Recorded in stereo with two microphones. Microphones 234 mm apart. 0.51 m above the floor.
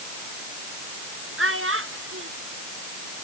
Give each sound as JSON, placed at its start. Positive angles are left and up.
{"t": 1.4, "sound": "a child speaking", "side_deg": -65}